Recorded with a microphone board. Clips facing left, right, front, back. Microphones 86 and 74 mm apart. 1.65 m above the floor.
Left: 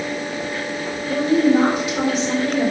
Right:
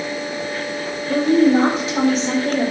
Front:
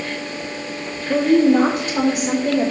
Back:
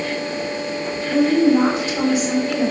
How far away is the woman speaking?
About 2.5 m.